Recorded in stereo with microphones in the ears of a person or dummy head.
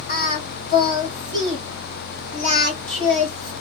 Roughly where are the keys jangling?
No keys jangling in this recording.